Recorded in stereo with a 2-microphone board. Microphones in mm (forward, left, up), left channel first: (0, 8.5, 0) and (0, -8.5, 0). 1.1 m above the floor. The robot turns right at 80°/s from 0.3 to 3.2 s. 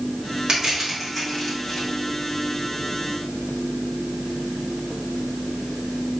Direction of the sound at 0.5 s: 45° right (ahead or behind).